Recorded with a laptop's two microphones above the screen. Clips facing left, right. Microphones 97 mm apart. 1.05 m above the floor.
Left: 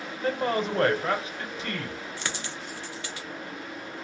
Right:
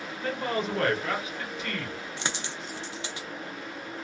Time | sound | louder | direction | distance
0.2 | a man speaking | left 3 dB | 35° left (ahead or behind) | 0.9 m
2.2 | a dropped coin | right 1 dB | 20° right (ahead or behind) | 0.5 m